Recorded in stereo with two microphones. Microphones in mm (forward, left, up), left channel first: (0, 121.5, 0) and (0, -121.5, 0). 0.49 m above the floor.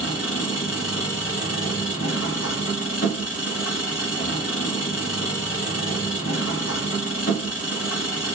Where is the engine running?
90° left, 0.9 m.